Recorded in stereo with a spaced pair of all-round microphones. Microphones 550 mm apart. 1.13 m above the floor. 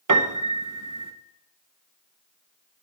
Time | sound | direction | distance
0.1 | a piano | 35° right (ahead or behind) | 0.7 m